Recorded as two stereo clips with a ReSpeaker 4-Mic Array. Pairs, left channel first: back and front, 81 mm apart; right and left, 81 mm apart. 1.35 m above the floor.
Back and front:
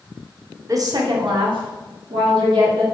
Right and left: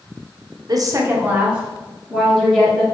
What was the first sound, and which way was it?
A woman speaking, 50° left.